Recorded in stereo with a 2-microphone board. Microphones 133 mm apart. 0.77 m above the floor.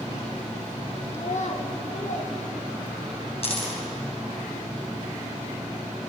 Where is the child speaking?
50° left (ahead or behind), 1.0 m; by 3.2 s 80° left, 3 m.